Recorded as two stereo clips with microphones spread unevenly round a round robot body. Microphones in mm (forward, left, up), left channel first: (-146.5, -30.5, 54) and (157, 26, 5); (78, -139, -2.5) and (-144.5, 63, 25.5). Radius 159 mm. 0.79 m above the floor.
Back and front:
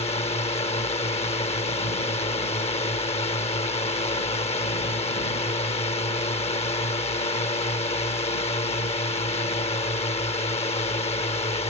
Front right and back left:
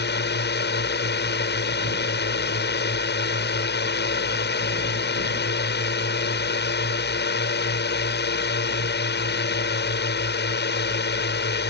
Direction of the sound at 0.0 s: 95° right.